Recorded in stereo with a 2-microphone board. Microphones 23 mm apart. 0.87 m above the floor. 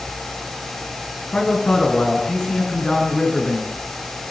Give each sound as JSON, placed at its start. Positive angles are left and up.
{"t": 1.3, "sound": "a man speaking", "side_deg": 65, "distance_m": 9.0}